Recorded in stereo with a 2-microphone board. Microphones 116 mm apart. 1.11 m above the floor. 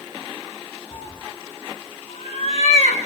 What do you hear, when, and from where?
0.9 s a cat meowing: 60° left (ahead or behind), 2 m; by 3.1 s 75° left (ahead or behind), 3 m